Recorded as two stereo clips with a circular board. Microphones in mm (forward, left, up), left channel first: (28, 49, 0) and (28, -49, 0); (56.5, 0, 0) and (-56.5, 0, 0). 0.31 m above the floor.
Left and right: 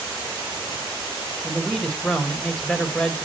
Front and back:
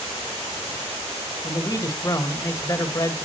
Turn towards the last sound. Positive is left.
turn(degrees=15)